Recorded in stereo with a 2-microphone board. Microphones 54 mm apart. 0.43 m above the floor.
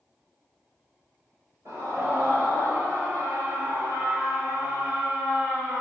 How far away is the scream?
About 8.5 m.